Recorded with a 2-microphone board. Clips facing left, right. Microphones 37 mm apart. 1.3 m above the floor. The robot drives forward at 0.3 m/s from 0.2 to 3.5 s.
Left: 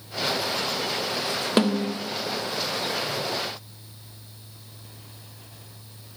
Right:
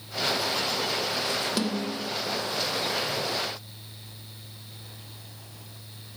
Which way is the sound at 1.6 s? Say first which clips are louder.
Left 6 dB; 40° left (ahead or behind).